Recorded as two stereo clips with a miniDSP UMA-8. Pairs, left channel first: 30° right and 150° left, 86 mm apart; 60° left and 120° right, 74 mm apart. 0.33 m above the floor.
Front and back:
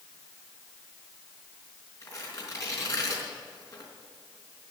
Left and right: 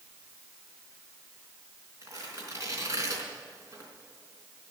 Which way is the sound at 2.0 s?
80° right.